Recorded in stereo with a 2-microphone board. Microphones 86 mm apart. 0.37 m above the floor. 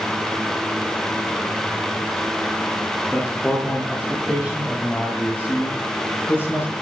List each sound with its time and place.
3.1 s a man speaking: 10° left (ahead or behind), 9.5 m; by 6.7 s 25° left (ahead or behind), 7 m